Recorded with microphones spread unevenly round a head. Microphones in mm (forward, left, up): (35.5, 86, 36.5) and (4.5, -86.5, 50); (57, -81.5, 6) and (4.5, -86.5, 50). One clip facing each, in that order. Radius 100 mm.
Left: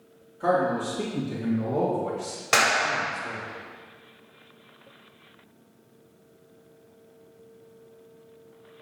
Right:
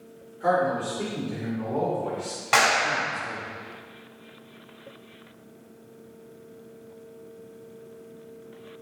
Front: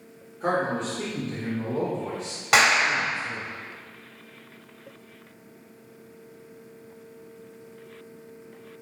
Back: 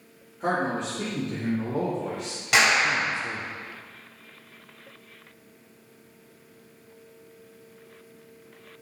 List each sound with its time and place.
0.4 s a man speaking: 105° left, 2.5 m; by 3.5 s 175° left, 1.2 m
2.5 s a clap: 40° left, 3 m